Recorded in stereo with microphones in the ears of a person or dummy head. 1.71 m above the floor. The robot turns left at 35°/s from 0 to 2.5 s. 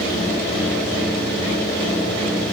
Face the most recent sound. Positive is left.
No sound to turn to.